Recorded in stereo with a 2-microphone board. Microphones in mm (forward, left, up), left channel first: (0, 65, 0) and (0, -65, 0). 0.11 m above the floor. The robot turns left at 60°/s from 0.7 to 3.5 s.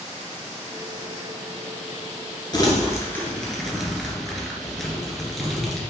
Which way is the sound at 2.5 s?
35° left (ahead or behind).